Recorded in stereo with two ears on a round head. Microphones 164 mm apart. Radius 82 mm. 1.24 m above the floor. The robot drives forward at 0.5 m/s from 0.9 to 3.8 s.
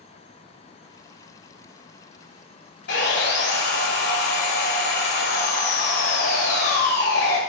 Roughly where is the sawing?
Left.